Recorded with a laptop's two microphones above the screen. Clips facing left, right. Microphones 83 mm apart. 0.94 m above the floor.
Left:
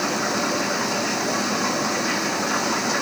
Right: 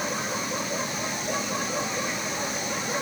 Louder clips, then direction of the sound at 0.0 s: Left 7 dB; 80° left.